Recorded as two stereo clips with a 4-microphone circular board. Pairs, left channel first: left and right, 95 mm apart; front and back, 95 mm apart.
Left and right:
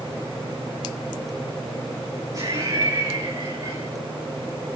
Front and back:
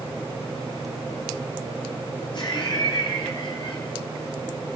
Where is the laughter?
40° right, 4 m.